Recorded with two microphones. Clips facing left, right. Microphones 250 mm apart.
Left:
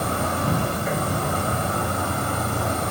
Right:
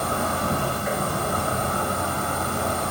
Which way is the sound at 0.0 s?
30° left (ahead or behind).